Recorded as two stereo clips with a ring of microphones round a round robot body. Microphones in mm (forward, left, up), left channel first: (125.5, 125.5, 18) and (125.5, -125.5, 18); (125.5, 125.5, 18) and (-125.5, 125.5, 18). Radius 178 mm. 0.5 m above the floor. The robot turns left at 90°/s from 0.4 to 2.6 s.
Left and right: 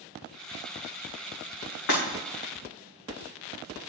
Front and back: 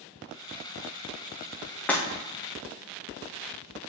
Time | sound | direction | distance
1.9 | breaking glass | 85° left | 3.5 m